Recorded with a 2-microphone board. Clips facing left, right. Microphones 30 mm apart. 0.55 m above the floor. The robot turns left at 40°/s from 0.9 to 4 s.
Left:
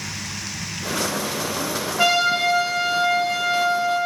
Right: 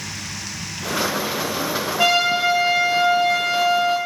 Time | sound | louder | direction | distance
2.0 | a trumpet | right 1 dB | 5° left | 1.6 m